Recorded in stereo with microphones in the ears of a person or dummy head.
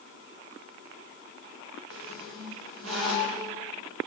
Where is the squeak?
75° right (ahead or behind), 3.5 m.